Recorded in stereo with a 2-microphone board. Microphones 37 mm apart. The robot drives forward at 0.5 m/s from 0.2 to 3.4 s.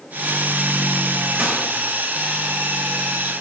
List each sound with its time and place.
1.4 s a gunshot: 50° right (ahead or behind), 3 m